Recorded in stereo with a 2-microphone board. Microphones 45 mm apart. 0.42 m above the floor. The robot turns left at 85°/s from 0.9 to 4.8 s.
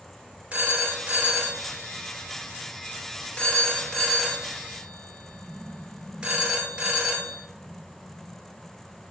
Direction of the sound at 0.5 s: 25° right (ahead or behind).